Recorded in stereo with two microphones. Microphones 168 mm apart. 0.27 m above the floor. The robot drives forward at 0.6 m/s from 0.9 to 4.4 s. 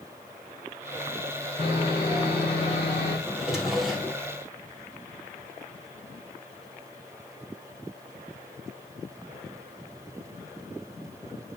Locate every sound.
1.6 s sawing: 35° left (ahead or behind), 5 m; by 3.2 s 40° left (ahead or behind), 4.5 m
3.3 s a drawer: centre (ahead or behind), 2.5 m